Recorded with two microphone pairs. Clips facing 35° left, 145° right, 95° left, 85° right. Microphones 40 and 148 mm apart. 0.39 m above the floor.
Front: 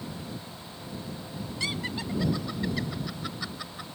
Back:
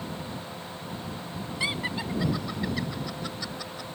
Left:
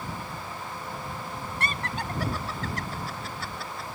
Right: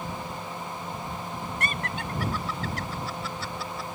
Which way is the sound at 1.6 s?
145° left.